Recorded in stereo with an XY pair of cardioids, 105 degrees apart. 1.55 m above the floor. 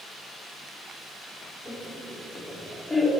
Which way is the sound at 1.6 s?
15° left.